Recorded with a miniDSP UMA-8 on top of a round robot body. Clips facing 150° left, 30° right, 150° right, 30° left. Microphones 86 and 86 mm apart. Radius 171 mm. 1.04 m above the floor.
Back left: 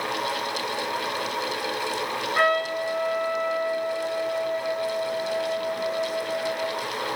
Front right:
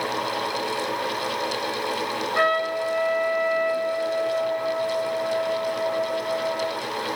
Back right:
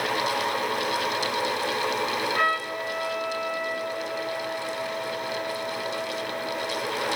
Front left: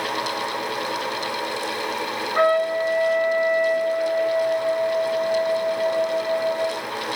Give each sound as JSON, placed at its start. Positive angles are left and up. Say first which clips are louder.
{"t": 2.4, "sound": "a trumpet", "louder": "even, front left 7 dB", "azimuth_deg": 90, "distance_m": 9.5}